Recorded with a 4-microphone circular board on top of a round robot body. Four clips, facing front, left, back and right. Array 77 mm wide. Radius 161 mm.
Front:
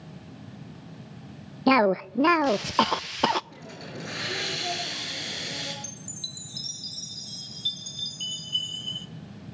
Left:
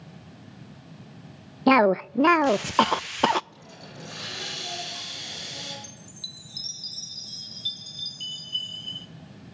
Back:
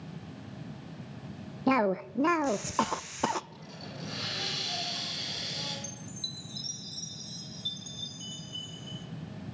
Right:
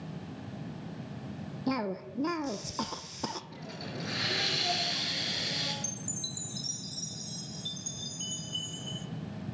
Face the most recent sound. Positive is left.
turn(degrees=20)